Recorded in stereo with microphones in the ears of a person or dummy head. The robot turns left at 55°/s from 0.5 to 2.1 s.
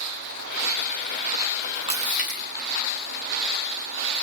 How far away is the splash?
About 4.5 m.